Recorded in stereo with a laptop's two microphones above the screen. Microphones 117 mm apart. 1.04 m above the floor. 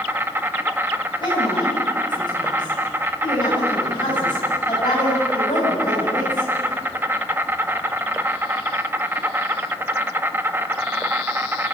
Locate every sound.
0.0 s an insect: 20° right (ahead or behind), 1.1 m
1.2 s a woman speaking: 40° left (ahead or behind), 8 m